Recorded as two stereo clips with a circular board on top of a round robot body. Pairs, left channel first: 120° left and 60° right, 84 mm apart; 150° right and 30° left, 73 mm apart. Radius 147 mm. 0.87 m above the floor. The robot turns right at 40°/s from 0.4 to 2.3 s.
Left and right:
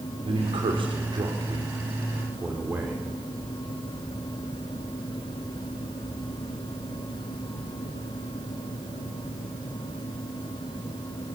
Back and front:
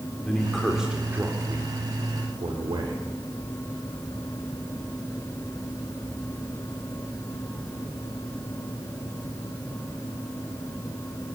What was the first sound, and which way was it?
A man speaking, 70° right.